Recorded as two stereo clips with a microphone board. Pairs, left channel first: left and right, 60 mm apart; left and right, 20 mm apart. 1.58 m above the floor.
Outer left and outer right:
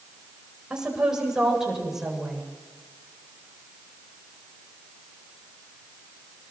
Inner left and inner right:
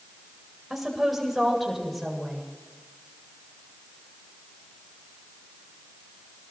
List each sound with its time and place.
0.7 s a woman speaking: 10° right (ahead or behind), 8.5 m; by 2.4 s centre (ahead or behind), 7.5 m